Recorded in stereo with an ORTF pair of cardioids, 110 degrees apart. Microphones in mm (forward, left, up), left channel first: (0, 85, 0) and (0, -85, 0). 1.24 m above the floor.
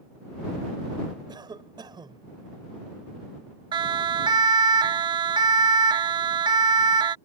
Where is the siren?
25° right.